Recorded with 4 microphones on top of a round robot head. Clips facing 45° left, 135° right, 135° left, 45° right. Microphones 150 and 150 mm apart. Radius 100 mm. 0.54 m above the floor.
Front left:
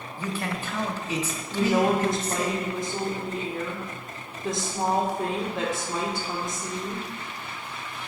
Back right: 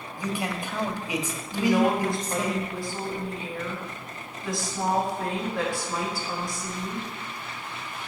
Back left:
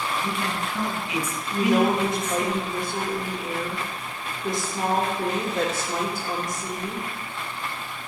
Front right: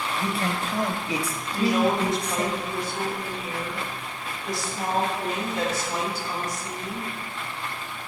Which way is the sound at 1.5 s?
110° left.